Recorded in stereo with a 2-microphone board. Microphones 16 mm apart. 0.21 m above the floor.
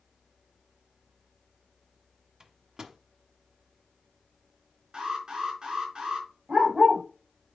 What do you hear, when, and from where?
2.4 s a microwave: 35° right (ahead or behind), 1.1 m
4.9 s an alarm: 55° right (ahead or behind), 4.5 m
6.5 s a dog barking: 75° right (ahead or behind), 4.5 m